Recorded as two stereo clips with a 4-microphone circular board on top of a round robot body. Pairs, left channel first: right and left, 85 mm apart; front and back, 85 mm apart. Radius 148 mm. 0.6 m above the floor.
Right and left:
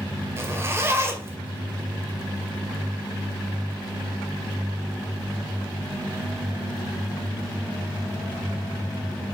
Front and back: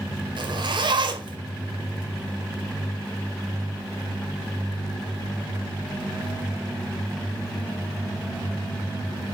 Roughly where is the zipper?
Behind left.